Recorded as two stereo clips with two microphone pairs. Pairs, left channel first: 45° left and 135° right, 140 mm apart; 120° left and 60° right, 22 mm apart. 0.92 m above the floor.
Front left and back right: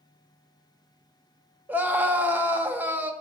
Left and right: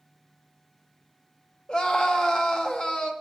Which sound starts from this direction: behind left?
A scream, at 1.7 s.